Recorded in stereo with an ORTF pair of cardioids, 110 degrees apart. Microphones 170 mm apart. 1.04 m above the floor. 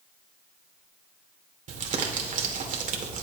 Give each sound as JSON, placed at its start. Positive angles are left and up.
{"t": 1.7, "sound": "crumpling", "azimuth_deg": -50, "distance_m": 2.0}